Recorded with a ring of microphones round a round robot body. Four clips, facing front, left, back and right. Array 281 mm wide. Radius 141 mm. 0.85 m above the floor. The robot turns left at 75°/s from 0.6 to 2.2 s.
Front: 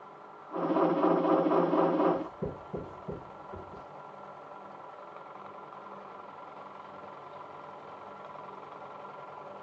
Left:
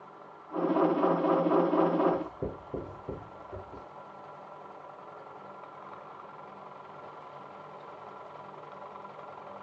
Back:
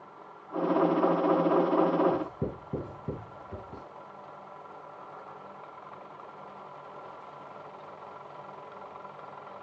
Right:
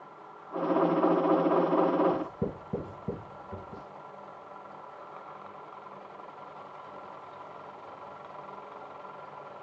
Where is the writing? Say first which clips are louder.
Right 1 dB, back 1 dB; 120° right, 1.9 m; by 3.8 s 130° right, 1.9 m.